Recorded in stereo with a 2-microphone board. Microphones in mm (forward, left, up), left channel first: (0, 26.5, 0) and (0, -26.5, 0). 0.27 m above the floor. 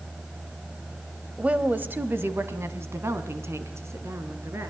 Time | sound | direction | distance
1.4 | a woman speaking | 25° right (ahead or behind) | 1.0 m